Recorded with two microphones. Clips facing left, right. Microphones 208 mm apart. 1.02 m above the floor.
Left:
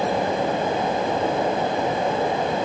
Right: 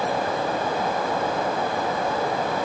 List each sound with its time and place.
Only background noise.